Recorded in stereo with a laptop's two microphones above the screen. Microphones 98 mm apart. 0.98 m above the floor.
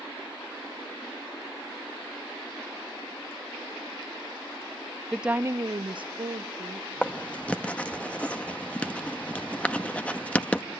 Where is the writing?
15° left (ahead or behind), 0.8 m.